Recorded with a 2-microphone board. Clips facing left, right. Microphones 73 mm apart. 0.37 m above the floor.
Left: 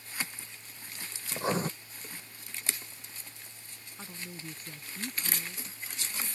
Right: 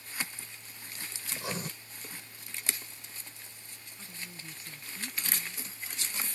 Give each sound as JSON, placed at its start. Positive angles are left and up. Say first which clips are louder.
{"t": 1.3, "sound": "writing", "louder": "left 7 dB", "side_deg": 35}
{"t": 4.0, "sound": "a woman speaking", "louder": "left 4 dB", "side_deg": 50}